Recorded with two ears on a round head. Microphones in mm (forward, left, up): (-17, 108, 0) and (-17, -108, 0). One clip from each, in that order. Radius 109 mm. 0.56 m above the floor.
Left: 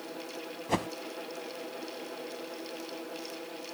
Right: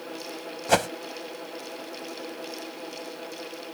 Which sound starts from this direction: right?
A whoosh, at 0.7 s.